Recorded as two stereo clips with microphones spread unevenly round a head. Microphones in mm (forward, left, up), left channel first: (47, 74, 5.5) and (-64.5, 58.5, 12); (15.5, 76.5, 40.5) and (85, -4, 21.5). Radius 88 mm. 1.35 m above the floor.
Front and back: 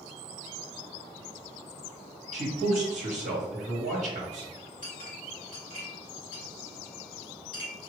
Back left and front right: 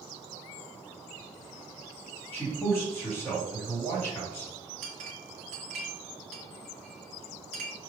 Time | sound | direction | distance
2.3 | a man speaking | 150° right | 1.5 m
4.8 | a clink | 45° right | 0.8 m